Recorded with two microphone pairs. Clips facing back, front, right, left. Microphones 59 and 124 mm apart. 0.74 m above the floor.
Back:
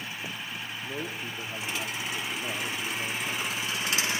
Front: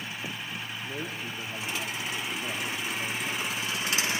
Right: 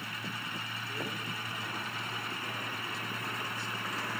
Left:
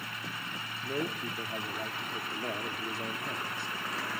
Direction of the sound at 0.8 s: 100° left.